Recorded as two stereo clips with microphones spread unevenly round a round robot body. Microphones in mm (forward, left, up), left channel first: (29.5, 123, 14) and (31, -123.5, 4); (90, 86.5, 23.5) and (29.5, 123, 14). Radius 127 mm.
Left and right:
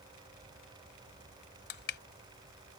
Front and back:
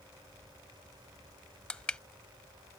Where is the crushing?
45° left.